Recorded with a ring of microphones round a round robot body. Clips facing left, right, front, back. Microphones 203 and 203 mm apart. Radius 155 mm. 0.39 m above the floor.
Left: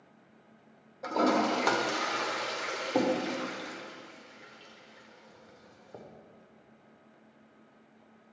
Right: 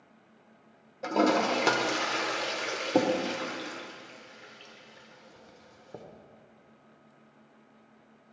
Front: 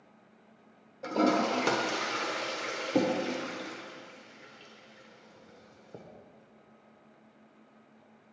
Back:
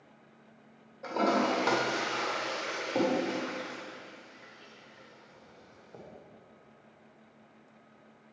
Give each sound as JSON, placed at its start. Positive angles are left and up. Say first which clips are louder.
{"t": 1.0, "sound": "a toilet flushing", "louder": "right 2 dB, front 2 dB", "azimuth_deg": -40, "distance_m": 1.1}